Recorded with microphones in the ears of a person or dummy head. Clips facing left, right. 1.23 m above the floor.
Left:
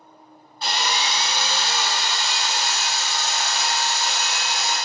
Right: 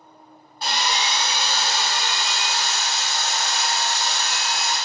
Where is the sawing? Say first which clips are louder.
Even; 35° right (ahead or behind), 1.6 m.